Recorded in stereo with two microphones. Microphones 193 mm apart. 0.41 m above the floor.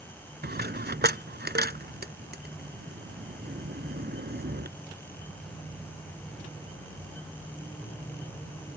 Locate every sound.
0.4 s a dropped coin: 60° right (ahead or behind)